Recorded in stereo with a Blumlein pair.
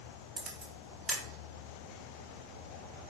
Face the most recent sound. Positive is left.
turn(degrees=-15)